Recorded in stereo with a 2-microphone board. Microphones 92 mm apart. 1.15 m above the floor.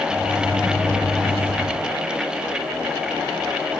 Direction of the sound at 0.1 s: 25° left (ahead or behind).